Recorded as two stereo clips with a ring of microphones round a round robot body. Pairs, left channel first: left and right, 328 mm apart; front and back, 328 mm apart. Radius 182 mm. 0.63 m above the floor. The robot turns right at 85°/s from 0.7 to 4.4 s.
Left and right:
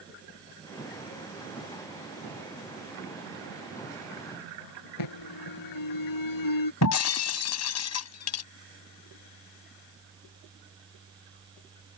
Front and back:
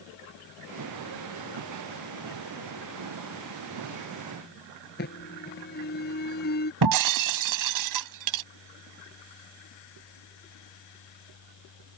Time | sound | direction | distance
5.0 | an alarm | 65° left | ?
6.8 | breaking glass | 140° left | ?